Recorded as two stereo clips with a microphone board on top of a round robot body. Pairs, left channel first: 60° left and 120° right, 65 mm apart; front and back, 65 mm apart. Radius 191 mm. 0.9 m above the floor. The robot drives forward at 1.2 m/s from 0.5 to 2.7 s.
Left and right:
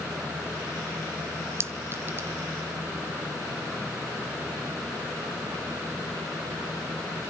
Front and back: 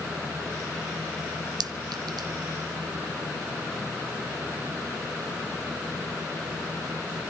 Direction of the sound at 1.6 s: 175° right.